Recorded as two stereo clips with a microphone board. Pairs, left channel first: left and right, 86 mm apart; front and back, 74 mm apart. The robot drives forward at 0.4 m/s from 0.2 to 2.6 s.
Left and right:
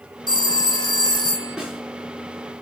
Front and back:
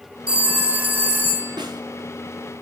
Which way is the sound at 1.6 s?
175° right.